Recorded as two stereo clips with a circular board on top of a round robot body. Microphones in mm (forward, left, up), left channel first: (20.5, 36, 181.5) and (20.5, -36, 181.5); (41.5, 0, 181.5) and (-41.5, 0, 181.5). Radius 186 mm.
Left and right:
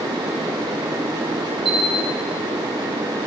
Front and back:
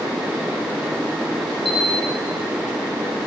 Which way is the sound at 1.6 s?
5° right.